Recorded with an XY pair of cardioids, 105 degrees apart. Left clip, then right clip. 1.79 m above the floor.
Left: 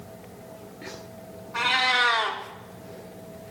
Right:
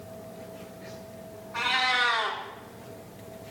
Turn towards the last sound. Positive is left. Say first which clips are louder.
# left 3 dB
turn(degrees=15)